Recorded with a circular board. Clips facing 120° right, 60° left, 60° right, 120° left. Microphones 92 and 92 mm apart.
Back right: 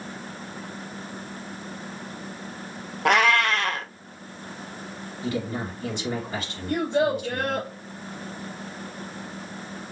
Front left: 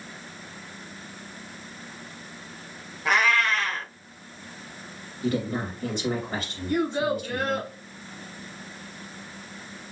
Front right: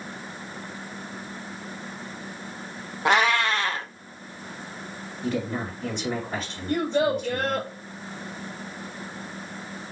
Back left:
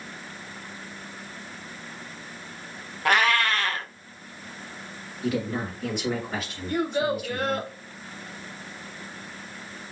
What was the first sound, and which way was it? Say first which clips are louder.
A cat meowing: back right 3 dB, front right 1 dB; 130° right.